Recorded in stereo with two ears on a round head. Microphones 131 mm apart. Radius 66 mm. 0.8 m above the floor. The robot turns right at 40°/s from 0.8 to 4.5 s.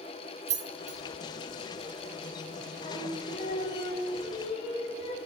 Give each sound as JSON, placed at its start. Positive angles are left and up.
{"t": 0.5, "sound": "keys jangling", "side_deg": -50, "distance_m": 0.7}
{"t": 2.8, "sound": "singing", "azimuth_deg": 55, "distance_m": 1.0}